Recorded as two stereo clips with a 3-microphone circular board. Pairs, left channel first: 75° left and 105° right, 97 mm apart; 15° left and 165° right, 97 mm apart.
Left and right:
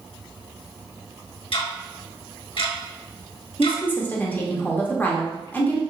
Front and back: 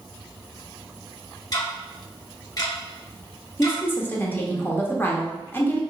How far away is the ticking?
About 1.1 m.